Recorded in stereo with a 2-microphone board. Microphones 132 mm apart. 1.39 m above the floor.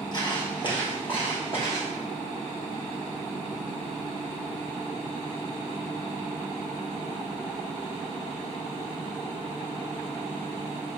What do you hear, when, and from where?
0.1 s footsteps: 35° left (ahead or behind), 2 m; by 1.9 s 45° left (ahead or behind), 3 m